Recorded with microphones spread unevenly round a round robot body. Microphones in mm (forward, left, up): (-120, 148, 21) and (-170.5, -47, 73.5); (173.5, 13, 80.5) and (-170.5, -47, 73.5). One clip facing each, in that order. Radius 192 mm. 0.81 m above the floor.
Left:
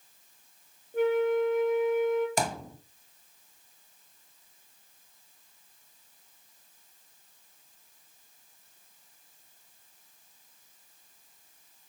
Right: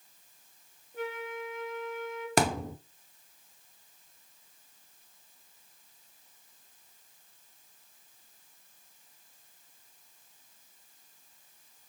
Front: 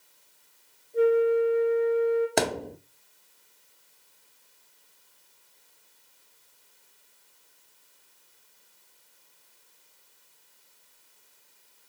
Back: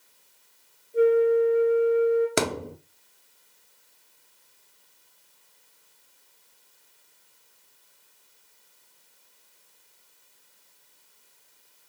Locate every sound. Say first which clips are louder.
0.9 s a flute: left 13 dB, back 2 dB; 110° left, 3 m
2.4 s a thud: right 4 dB, back 1 dB; 90° right, 0.6 m